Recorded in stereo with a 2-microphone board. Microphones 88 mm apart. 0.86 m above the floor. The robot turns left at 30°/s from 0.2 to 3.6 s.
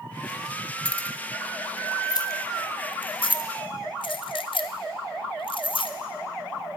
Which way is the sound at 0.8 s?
10° left (ahead or behind).